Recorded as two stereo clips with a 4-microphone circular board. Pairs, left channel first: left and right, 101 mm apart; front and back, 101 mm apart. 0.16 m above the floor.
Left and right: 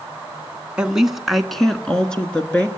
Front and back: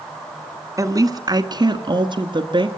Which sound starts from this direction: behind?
A woman speaking, at 0.8 s.